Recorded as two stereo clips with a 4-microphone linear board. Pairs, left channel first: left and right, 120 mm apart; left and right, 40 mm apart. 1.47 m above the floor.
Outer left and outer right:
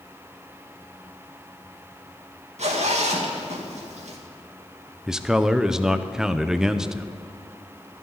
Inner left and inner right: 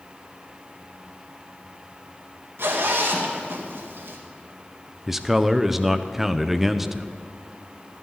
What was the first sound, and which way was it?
A zipper, 80° right.